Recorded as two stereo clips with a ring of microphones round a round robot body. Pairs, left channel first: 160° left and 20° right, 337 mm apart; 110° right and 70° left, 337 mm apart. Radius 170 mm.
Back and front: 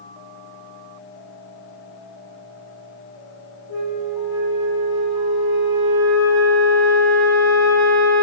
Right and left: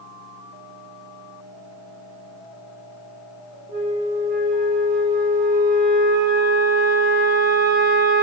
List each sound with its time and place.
3.7 s a flute: straight ahead, 3 m